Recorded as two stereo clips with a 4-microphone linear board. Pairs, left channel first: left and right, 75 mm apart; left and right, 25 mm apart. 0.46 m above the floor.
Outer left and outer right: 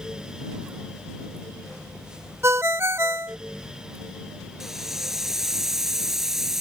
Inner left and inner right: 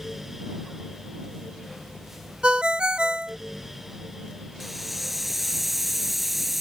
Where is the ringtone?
40° right (ahead or behind).